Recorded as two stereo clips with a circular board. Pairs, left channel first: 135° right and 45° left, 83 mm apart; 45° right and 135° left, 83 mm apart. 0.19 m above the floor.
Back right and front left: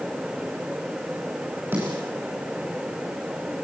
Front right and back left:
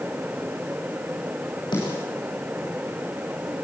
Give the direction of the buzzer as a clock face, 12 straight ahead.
No buzzer in this recording.